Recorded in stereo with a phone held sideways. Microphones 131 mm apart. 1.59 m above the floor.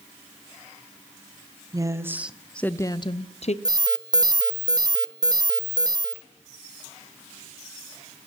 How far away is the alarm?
About 0.5 m.